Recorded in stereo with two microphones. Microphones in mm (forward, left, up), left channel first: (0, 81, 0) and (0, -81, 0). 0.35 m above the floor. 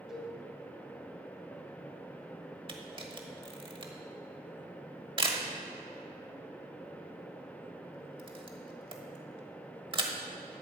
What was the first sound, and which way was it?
A cowbell, centre (ahead or behind).